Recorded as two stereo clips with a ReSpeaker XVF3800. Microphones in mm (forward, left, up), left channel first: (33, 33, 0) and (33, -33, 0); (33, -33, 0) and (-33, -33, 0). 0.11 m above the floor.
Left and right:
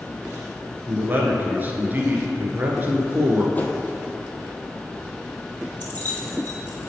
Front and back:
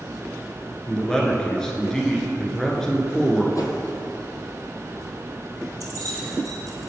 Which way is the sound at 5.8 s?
155° left.